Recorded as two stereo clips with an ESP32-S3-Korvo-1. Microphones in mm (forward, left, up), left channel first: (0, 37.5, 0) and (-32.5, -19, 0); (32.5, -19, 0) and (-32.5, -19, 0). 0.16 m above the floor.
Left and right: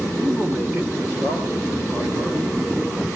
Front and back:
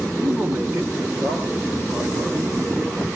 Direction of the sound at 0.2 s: 135° right.